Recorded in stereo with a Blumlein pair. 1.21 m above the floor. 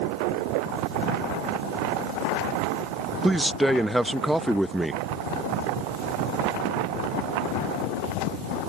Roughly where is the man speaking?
Ahead.